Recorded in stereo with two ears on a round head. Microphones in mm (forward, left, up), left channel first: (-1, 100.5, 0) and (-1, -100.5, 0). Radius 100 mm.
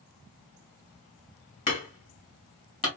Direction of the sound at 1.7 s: 20° left (ahead or behind).